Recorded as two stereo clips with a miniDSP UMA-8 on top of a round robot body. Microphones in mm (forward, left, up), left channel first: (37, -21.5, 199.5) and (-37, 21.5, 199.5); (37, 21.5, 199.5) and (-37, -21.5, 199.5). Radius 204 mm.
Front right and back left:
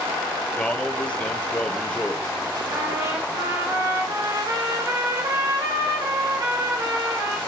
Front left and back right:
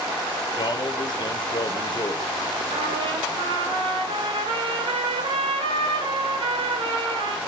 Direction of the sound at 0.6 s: 45° left.